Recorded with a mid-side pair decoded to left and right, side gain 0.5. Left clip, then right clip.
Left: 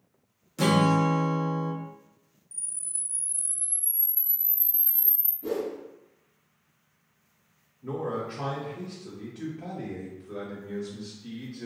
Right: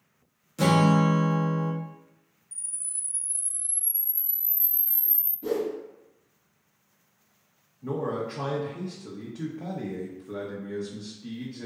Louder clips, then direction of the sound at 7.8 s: Right 2 dB; 55° right.